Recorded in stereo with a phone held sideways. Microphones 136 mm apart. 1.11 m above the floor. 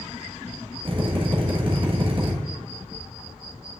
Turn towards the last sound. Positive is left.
turn(degrees=-40)  # may be behind; listen again after turning